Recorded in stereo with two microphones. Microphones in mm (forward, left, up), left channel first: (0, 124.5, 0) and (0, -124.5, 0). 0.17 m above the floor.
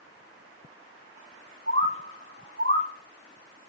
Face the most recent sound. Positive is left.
turn(degrees=-50)  # may be behind; listen again after turning